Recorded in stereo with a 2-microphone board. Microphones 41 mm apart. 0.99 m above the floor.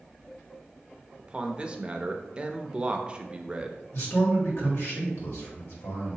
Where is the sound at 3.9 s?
70° left (ahead or behind), 1.6 m.